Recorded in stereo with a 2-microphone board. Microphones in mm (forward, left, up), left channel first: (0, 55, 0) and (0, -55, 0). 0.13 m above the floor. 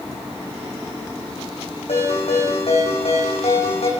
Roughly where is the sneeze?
No sneeze in this recording.